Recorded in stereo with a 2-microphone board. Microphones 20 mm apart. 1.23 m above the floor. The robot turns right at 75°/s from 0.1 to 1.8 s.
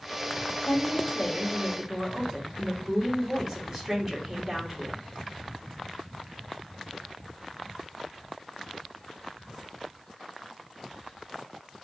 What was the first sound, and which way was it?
A woman speaking, 100° left.